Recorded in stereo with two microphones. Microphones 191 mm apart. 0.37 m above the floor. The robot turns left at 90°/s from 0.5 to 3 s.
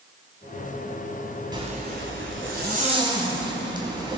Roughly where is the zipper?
Ahead.